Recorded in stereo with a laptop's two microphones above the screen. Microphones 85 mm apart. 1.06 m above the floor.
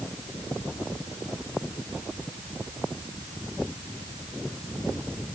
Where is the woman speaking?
I don't hear a woman speaking.